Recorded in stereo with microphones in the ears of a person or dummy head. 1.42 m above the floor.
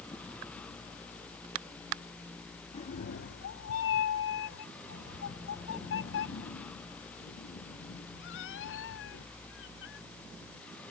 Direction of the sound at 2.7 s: 30° left (ahead or behind).